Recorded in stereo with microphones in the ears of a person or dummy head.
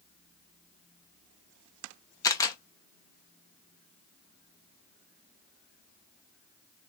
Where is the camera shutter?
15° left (ahead or behind), 0.7 m.